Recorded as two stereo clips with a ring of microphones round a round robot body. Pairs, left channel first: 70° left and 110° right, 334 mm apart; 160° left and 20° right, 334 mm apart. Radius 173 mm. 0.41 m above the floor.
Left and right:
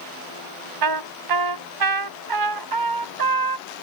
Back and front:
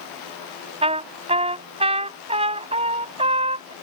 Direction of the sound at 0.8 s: 95° right.